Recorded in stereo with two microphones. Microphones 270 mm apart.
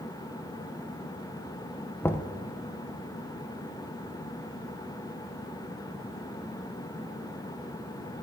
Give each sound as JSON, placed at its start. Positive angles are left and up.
{"t": 2.0, "sound": "knocking", "side_deg": 10, "distance_m": 0.5}